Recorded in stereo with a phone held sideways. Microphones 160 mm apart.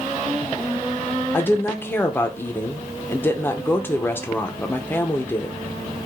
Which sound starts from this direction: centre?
A woman speaking, at 1.3 s.